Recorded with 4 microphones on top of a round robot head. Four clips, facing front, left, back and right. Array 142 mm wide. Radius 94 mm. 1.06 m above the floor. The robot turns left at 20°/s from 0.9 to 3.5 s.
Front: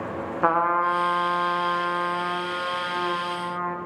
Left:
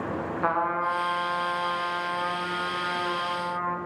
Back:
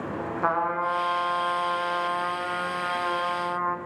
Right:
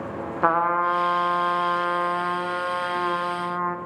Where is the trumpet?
70° right, 0.8 m; by 3.8 s 125° right, 0.8 m.